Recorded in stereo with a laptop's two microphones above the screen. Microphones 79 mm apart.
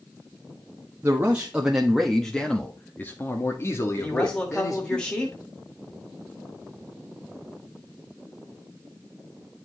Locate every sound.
1.0 s a man speaking: 25° right (ahead or behind), 1.3 m; by 5.0 s 50° left (ahead or behind), 2.5 m
4.0 s a man speaking: 10° left (ahead or behind), 1.7 m